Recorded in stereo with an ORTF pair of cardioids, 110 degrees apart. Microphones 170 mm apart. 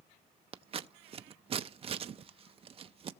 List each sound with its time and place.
0.5 s scissors: 35° right, 0.5 m